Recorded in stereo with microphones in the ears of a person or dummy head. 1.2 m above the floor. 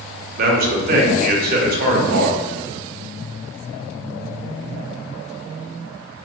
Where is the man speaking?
50° right (ahead or behind), 0.7 m.